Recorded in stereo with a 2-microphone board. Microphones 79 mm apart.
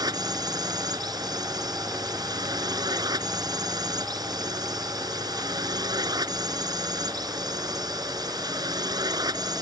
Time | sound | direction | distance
0.0 | a drone | 55° right (ahead or behind) | ?